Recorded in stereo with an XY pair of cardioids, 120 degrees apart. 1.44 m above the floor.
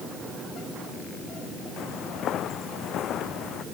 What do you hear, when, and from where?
1.8 s footsteps: 65° left